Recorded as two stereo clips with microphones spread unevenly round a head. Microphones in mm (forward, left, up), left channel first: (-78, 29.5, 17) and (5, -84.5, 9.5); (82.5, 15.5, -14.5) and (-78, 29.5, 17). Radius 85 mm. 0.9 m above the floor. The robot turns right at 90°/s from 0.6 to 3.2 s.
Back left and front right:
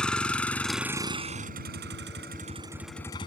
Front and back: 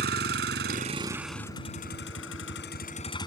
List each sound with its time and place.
0.0 s a vehicle: 150° right; by 3.3 s 60° left